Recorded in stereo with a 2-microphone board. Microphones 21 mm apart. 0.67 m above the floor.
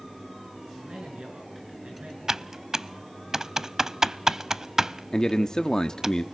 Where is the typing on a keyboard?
25° right (ahead or behind), 0.5 m.